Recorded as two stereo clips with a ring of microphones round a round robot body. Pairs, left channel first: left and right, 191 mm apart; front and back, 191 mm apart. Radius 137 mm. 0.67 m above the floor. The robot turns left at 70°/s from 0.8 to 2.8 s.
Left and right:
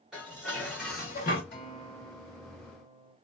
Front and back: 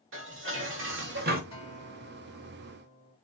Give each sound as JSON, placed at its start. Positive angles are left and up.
{"t": 0.1, "sound": "dishes clattering", "azimuth_deg": 180, "distance_m": 1.4}
{"t": 1.5, "sound": "a guitar", "azimuth_deg": 60, "distance_m": 2.5}